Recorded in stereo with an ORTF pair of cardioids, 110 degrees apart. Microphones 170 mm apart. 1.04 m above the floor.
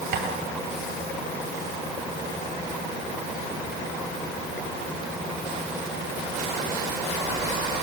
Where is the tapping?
70° right, 10 m.